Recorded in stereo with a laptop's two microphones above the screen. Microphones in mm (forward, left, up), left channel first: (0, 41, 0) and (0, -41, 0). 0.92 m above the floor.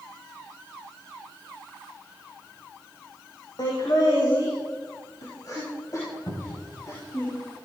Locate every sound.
3.6 s laughter: 55° left (ahead or behind), 4.5 m; by 7.2 s 40° left (ahead or behind), 6.5 m
6.3 s a cupboard door: 50° left (ahead or behind), 3 m